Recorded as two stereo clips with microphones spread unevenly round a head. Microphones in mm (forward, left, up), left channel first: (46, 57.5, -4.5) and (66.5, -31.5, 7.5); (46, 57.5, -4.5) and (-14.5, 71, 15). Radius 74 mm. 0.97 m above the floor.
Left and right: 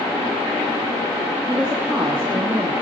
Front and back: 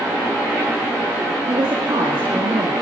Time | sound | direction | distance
1.5 | a woman speaking | 160° right | 1.9 m